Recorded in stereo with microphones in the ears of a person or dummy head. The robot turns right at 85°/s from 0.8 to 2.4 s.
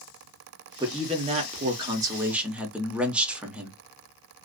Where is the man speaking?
15° right (ahead or behind), 0.6 m; by 3.8 s 5° right (ahead or behind), 0.6 m.